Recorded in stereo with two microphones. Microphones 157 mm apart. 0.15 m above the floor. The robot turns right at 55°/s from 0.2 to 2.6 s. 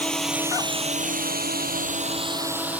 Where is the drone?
5° left (ahead or behind); by 2.8 s 10° right (ahead or behind).